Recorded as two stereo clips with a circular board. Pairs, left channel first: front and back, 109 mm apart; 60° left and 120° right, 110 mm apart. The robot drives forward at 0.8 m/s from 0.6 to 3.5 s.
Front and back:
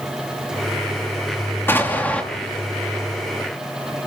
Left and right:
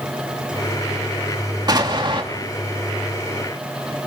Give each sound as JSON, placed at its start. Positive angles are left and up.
{"t": 1.7, "sound": "an explosion", "azimuth_deg": -70, "distance_m": 3.0}